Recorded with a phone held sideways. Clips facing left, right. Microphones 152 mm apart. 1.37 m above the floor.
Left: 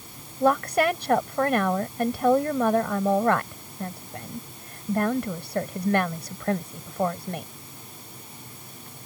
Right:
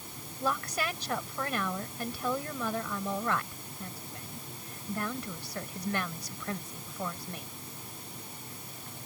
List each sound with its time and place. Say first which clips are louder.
0.4 s a woman speaking: left 12 dB; 60° left (ahead or behind)